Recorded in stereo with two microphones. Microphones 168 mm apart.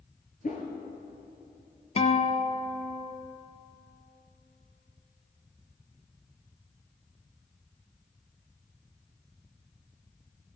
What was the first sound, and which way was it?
A whoosh, 50° left (ahead or behind).